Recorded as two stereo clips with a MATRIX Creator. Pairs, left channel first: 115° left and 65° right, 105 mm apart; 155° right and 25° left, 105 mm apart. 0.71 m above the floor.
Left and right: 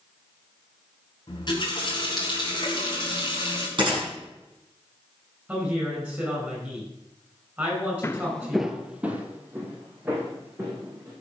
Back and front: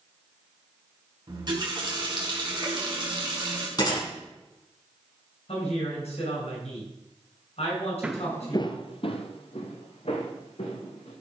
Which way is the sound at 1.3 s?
65° left.